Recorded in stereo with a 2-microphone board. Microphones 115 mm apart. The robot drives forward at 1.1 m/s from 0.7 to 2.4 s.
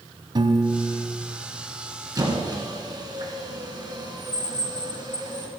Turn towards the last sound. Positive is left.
turn(degrees=-35)  # may be behind; listen again after turning